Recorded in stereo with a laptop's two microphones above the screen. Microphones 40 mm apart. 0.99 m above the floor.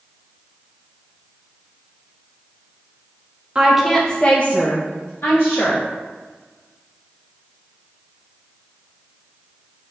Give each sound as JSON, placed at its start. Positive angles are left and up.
{"t": 3.5, "sound": "a woman speaking", "side_deg": -20, "distance_m": 0.6}